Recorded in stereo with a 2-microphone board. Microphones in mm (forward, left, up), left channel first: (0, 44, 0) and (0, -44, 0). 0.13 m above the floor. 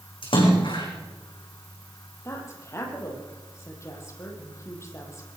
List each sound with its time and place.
0.2 s a splash: 75° left (ahead or behind), 7 m
2.2 s a woman speaking: 30° left (ahead or behind), 6 m